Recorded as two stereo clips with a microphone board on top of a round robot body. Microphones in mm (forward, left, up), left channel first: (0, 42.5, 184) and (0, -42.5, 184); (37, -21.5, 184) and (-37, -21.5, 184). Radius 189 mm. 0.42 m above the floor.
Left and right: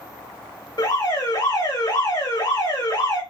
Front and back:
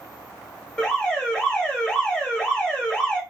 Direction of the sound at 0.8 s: 75° left.